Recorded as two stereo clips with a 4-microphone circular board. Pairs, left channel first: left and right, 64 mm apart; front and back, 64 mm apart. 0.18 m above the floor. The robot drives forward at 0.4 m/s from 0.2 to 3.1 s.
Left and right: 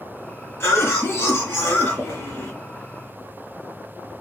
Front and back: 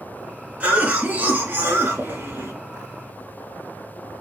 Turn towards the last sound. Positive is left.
turn(degrees=145)